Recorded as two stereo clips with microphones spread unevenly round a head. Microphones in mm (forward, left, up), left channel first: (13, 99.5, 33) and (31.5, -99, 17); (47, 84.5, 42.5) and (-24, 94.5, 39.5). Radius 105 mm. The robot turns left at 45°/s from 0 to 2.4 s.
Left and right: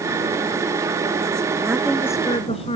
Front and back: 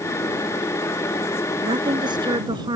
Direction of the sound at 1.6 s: 165° right.